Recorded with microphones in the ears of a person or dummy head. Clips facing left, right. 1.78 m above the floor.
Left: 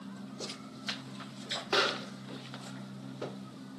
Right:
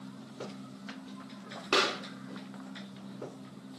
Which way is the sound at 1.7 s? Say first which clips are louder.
Right 1 dB; 70° right (ahead or behind).